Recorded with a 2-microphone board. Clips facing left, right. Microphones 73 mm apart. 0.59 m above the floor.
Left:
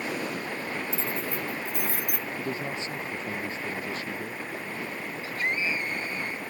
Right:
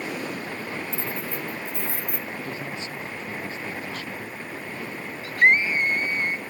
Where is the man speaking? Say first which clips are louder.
Left 1 dB; 30° left (ahead or behind).